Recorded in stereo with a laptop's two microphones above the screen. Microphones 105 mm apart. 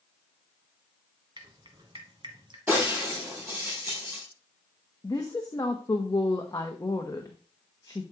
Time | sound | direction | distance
1.4 | dripping | 50° right (ahead or behind) | 1.4 m
2.7 | breaking glass | 15° right (ahead or behind) | 5 m
5.0 | a woman speaking | 35° left (ahead or behind) | 0.9 m